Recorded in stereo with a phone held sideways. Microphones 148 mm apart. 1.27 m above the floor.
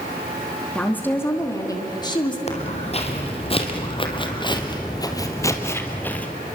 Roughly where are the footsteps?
Left.